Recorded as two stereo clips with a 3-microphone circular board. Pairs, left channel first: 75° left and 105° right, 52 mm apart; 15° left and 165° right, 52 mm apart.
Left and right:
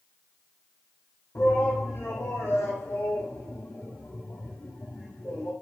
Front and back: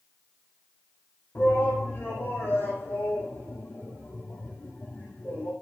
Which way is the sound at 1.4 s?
60° left.